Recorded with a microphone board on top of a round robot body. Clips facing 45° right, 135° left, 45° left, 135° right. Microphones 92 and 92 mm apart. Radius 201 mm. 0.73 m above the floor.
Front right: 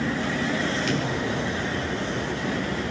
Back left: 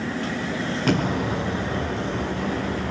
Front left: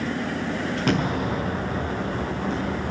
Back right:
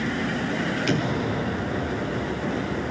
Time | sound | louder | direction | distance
0.9 | an explosion | back left 3 dB, front left 4 dB | 90° left | 6 m